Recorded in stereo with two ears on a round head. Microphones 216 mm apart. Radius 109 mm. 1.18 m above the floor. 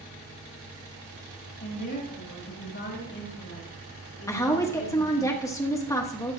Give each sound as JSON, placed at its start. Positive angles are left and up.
{"t": 1.6, "sound": "a woman speaking", "side_deg": 35, "distance_m": 6.0}
{"t": 4.3, "sound": "a woman speaking", "side_deg": 15, "distance_m": 1.2}